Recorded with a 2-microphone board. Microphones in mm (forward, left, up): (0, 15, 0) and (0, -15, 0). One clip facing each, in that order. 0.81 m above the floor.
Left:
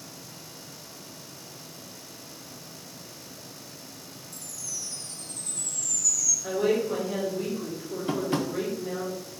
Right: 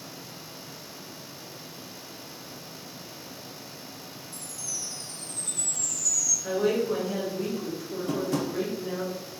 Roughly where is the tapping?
Left.